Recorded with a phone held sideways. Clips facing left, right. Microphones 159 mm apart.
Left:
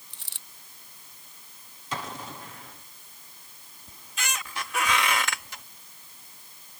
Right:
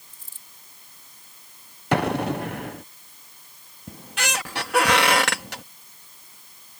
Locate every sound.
0.1 s a dropped coin: 75° left (ahead or behind)
1.9 s an explosion: 70° right (ahead or behind)
3.9 s a squeak: 70° right (ahead or behind)